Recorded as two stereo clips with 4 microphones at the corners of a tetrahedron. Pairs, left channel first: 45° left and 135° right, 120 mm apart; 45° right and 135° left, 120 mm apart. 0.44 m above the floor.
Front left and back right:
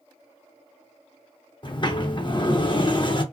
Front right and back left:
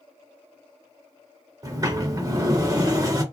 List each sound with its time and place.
1.6 s a sliding door: 85° left, 0.5 m